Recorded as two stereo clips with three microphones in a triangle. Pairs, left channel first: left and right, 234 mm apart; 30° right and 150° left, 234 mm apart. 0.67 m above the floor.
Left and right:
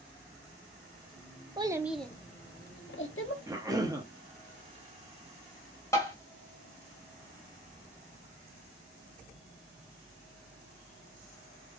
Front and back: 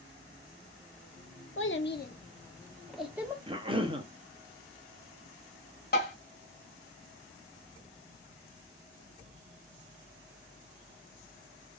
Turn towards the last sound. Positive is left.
turn(degrees=15)